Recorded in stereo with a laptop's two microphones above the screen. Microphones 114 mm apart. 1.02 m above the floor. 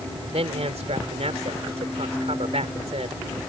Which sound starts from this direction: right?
A man speaking, at 0.3 s.